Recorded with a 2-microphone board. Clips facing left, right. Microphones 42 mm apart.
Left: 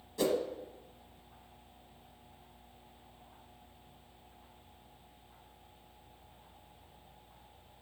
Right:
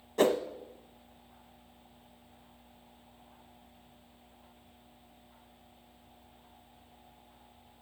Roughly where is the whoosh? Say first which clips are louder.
Right 5 dB; right.